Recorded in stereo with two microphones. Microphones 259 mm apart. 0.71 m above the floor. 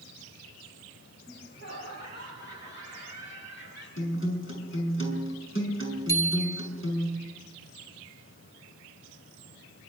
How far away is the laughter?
About 5.5 m.